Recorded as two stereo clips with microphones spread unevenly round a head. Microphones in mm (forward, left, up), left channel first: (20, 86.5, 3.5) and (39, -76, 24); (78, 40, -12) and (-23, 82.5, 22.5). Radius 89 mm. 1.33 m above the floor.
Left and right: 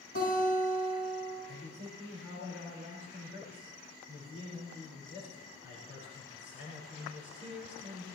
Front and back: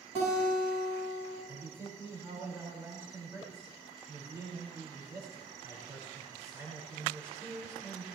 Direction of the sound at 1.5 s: 90° left.